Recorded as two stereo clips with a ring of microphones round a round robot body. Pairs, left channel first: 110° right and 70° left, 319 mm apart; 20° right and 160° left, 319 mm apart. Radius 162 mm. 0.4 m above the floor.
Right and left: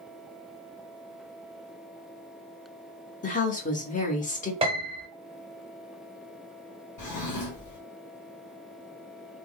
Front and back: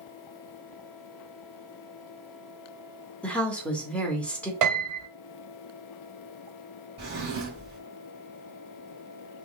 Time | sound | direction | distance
3.2 | a woman speaking | 105° right | 1.0 m
4.6 | a piano | 140° left | 1.3 m
7.0 | a drawer | 145° right | 2 m